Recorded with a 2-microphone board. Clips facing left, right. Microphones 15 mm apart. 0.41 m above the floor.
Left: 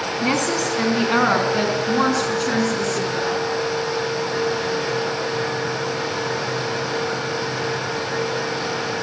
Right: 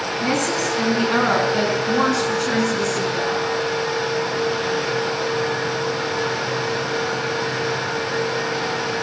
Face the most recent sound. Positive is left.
turn(degrees=-5)  # may be behind; listen again after turning